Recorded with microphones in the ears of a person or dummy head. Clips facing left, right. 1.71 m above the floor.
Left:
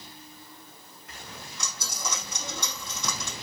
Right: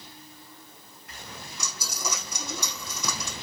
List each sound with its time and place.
1.6 s a dropped coin: 5° right (ahead or behind), 5 m